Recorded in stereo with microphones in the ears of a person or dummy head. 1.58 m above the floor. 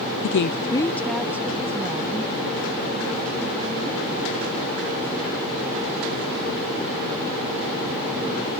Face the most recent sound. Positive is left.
turn(degrees=-35)  # may be behind; listen again after turning